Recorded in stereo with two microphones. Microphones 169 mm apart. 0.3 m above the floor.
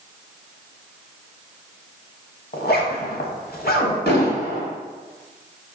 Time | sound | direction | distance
2.5 | a zipper | 65° left (ahead or behind) | 0.6 m
4.1 | an explosion | 75° left (ahead or behind) | 1.4 m